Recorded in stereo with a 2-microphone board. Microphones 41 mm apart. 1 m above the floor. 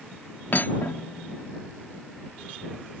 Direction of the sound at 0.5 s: 55° left (ahead or behind).